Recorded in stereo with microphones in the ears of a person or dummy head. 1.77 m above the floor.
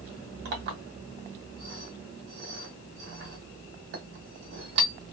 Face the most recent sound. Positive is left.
turn(degrees=-60)  # may be behind; listen again after turning